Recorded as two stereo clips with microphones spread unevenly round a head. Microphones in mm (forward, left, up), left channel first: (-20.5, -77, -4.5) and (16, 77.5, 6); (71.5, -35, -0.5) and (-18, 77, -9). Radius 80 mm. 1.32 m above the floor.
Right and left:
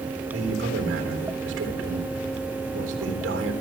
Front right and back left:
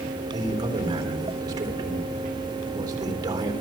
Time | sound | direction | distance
0.3 | a man speaking | 65° left | 3.5 m